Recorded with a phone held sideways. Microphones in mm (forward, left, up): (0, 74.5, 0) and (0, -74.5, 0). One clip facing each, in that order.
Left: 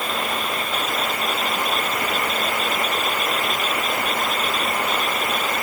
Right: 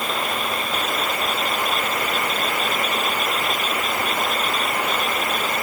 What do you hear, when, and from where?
Only background noise.